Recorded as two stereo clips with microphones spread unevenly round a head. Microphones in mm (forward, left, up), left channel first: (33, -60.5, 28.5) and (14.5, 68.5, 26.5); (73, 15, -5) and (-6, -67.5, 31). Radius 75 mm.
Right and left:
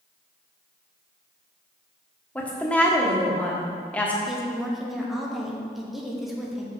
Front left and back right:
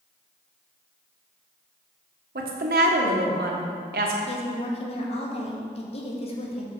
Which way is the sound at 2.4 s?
165° right.